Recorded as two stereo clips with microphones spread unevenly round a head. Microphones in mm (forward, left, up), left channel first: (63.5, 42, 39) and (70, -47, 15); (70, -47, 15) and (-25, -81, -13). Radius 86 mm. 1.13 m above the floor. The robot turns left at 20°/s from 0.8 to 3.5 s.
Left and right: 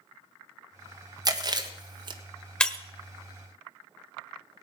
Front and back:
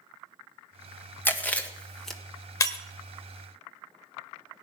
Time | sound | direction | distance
1.2 | chewing | 55° right | 1.6 m
2.6 | breaking glass | 30° left | 1.1 m